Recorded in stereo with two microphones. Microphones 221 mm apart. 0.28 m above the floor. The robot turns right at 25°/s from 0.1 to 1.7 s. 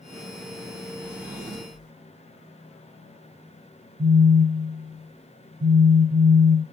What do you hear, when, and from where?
1.0 s a drawer: 5° right (ahead or behind), 1.3 m; by 1.9 s 20° right (ahead or behind), 1.3 m
4.0 s a phone buzzing: 10° right (ahead or behind), 1.5 m